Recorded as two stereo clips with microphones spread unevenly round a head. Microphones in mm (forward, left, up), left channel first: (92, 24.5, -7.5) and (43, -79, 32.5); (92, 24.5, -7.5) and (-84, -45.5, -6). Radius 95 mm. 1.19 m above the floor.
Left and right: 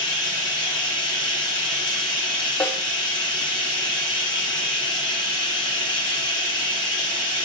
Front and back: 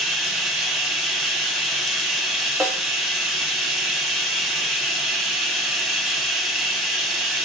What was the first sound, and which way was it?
Running water, 115° left.